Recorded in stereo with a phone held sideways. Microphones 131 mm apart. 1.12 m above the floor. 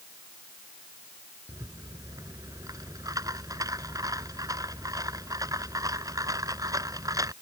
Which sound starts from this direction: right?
A rattle, at 1.5 s.